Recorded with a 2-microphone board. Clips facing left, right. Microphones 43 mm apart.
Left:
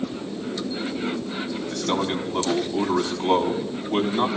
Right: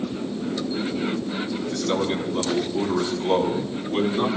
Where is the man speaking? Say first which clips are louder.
Even; 45° left (ahead or behind), 4 m.